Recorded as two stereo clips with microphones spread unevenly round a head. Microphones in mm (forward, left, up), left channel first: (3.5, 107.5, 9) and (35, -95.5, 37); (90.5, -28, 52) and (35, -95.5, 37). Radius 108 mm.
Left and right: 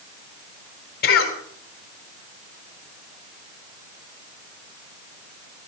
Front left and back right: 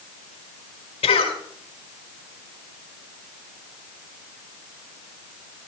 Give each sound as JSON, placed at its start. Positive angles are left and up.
{"t": 1.0, "sound": "a cough", "azimuth_deg": 55, "distance_m": 3.5}